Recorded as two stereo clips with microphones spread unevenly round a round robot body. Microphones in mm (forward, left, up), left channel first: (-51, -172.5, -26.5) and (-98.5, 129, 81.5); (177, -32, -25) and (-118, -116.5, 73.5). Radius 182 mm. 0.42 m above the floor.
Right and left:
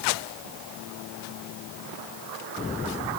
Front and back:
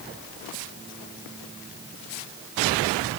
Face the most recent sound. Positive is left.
No sound to turn to.